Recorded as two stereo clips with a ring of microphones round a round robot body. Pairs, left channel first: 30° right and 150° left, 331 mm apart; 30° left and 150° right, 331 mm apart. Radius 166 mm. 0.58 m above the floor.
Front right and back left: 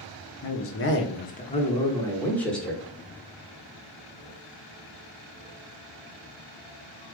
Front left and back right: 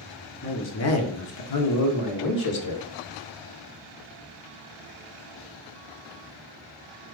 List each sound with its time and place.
0.4 s a man speaking: 15° right, 0.8 m; by 2.8 s 60° left, 1.5 m